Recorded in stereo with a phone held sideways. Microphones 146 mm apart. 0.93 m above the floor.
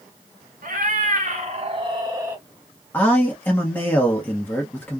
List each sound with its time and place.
0.6 s a cat meowing: 65° right (ahead or behind), 1.3 m; by 2.4 s 10° right (ahead or behind), 1.0 m
2.9 s a man speaking: 15° left (ahead or behind), 1.0 m